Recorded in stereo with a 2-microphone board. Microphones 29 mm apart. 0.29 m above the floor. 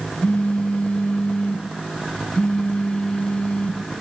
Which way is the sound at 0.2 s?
40° left (ahead or behind).